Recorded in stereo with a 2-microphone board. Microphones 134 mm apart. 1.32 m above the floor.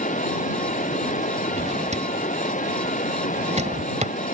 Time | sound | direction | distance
0.0 | running water | 70° left (ahead or behind) | ?
1.5 | a drawer | 60° right (ahead or behind) | ?